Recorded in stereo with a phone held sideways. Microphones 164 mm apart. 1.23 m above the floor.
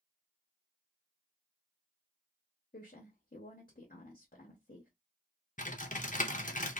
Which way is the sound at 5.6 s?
50° left (ahead or behind).